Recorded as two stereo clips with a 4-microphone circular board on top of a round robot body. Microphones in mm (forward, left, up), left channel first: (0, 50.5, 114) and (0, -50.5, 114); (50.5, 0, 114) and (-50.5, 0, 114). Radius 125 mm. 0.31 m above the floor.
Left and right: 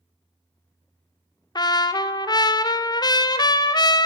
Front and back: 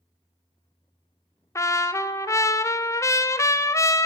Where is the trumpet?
55° left, 0.5 m.